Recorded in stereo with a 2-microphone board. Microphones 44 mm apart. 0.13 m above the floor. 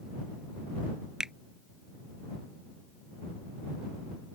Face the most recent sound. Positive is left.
turn(degrees=-15)  # may be behind; listen again after turning